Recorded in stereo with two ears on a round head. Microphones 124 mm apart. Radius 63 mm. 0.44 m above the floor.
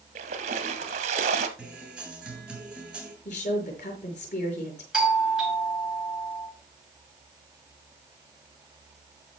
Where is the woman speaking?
55° left (ahead or behind), 5.5 m.